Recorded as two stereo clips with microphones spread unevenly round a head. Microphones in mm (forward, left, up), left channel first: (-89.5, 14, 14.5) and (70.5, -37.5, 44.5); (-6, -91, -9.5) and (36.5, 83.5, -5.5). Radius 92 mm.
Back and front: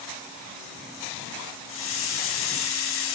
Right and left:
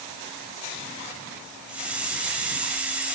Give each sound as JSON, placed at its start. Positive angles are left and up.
{"t": 1.7, "sound": "a hiss", "azimuth_deg": 160, "distance_m": 2.0}